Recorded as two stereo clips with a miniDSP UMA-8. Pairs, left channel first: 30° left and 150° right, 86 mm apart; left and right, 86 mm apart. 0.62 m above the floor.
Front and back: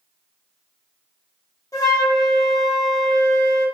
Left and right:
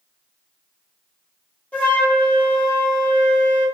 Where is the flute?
25° left, 0.7 m.